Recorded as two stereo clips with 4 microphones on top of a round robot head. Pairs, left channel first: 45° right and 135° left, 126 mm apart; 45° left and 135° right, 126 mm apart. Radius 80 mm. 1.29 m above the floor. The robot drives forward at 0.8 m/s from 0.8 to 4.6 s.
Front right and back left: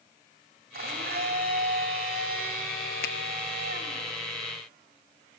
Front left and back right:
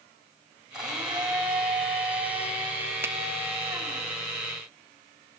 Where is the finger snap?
60° right, 0.9 m; by 3.1 s 65° right, 0.9 m.